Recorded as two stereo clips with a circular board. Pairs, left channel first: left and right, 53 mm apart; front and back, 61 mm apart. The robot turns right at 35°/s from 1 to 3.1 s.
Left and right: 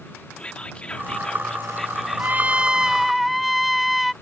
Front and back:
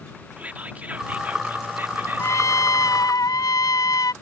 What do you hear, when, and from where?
0.4 s whispering: 140° left; by 2.6 s 165° right
2.2 s a trumpet: 35° right; by 4.1 s 5° right